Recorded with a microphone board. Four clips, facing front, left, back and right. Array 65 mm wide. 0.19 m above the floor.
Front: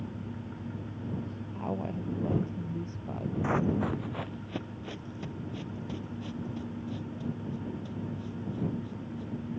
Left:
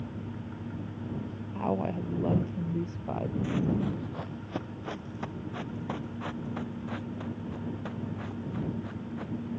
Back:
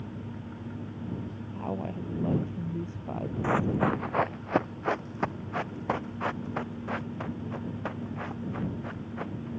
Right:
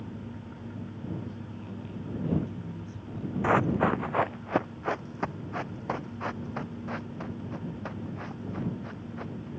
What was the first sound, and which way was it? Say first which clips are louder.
A woman speaking: left 10 dB, even; 95° left.